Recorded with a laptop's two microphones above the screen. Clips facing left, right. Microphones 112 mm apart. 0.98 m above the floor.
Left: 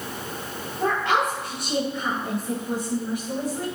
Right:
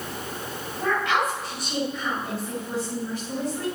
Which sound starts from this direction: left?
A woman speaking, at 0.8 s.